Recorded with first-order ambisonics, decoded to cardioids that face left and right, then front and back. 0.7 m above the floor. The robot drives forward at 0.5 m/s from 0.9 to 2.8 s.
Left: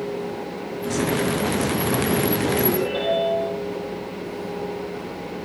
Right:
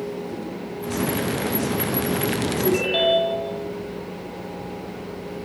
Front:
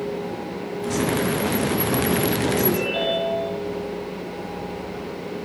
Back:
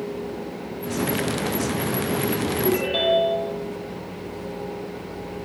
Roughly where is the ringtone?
Right.